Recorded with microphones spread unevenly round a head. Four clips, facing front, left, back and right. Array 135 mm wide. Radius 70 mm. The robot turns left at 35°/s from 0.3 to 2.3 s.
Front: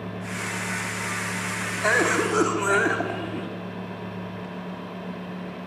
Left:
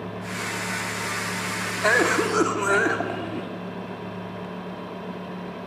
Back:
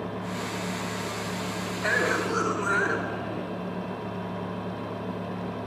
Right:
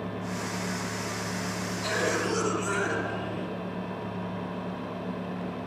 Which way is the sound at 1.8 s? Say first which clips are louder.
Left 8 dB, front 4 dB; 70° left.